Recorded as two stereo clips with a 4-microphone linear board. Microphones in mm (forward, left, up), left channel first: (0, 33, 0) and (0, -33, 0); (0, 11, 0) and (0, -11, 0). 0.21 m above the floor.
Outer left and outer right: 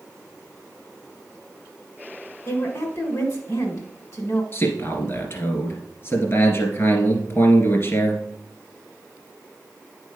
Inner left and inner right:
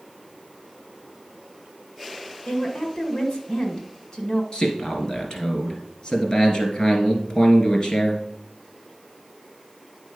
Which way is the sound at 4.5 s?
40° left (ahead or behind).